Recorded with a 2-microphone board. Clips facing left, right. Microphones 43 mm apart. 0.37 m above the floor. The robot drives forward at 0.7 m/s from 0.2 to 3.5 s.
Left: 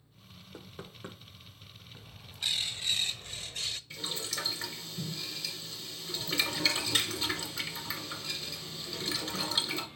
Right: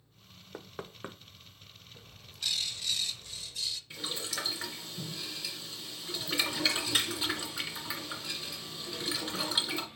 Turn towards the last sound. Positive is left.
turn(degrees=-15)  # may be behind; listen again after turning